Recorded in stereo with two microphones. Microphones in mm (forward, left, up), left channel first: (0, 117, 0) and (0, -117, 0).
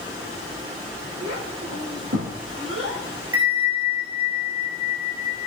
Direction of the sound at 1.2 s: 65° right (ahead or behind).